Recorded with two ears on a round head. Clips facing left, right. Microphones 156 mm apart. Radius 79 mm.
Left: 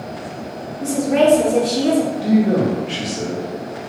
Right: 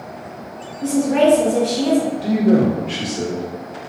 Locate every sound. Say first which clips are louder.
0.8 s a woman speaking: even; 30° left (ahead or behind), 1.3 m; by 2.1 s 35° left (ahead or behind), 1.1 m
2.2 s a man speaking: even; centre (ahead or behind), 1.3 m